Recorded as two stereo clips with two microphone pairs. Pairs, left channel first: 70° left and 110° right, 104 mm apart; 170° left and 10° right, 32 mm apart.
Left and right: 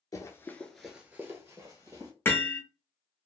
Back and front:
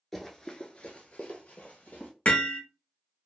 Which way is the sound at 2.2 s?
140° left.